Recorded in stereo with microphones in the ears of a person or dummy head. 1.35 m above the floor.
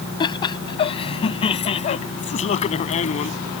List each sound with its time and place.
0.2 s laughter: 25° left (ahead or behind); by 3.3 s 40° left (ahead or behind)